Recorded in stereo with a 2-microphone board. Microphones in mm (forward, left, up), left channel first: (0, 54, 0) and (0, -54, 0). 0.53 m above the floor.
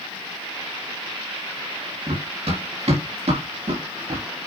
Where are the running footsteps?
70° right (ahead or behind), 4 m; by 4.3 s 75° right (ahead or behind), 3 m.